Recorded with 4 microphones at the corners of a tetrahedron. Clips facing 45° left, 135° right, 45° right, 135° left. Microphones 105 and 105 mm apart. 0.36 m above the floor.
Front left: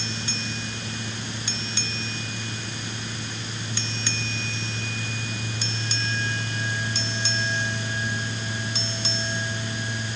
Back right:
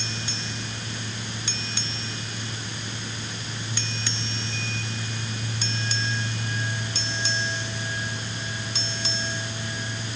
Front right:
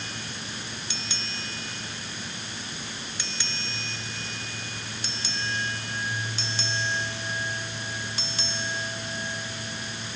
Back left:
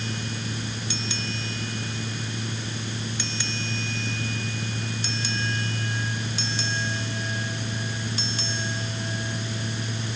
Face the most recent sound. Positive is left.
No sound to turn to.